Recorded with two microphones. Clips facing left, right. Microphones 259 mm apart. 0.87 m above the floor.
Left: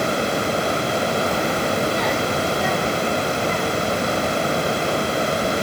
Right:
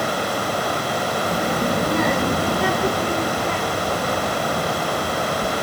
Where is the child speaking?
20° right (ahead or behind); by 5.5 s 70° right (ahead or behind).